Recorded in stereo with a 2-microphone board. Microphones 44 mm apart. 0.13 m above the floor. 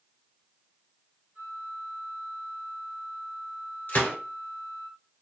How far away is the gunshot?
About 1.5 m.